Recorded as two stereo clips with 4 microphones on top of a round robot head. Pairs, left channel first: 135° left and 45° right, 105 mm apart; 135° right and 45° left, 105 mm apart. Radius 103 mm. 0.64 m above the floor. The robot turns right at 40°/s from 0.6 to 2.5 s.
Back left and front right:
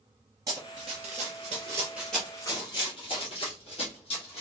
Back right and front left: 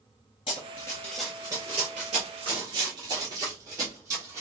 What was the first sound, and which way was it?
Running footsteps, 100° right.